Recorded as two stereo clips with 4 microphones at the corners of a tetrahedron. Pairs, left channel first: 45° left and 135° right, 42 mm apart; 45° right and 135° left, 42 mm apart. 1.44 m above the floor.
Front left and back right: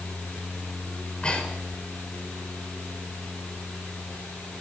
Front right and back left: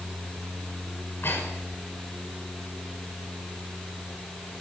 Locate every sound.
1.0 s breathing: 20° right, 6.5 m